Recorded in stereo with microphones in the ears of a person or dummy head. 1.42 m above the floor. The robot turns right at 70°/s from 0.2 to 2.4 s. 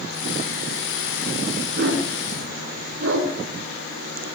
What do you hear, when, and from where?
1.8 s a dog barking: 45° right (ahead or behind), 6.5 m; by 3.3 s 85° right, 6.5 m